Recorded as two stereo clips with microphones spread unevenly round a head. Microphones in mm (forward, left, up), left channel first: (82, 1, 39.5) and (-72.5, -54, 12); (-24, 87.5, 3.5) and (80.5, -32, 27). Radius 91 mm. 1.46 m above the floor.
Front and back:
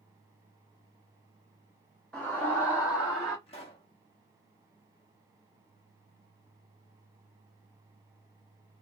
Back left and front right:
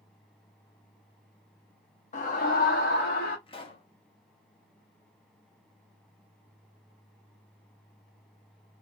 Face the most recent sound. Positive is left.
turn(degrees=70)